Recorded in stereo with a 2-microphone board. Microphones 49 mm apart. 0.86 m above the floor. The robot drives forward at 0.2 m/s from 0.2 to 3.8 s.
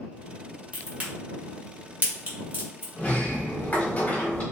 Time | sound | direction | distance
0.7 | a crack | 25° right (ahead or behind) | 1.3 m
3.0 | a sliding door | 30° left (ahead or behind) | 1.1 m